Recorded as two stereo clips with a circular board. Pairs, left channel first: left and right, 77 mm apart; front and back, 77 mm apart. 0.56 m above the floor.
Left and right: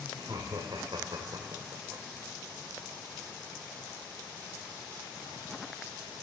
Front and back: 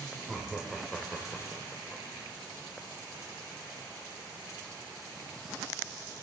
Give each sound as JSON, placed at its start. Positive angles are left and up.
{"t": 0.2, "sound": "laughter", "azimuth_deg": -90, "distance_m": 1.6}